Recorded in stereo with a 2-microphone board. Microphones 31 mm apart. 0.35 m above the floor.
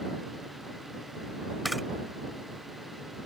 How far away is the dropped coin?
I don't hear a dropped coin.